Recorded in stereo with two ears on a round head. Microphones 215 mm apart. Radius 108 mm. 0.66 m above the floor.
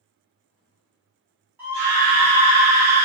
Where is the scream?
10° right (ahead or behind), 1.2 m; by 3.0 s 35° right (ahead or behind), 1.3 m.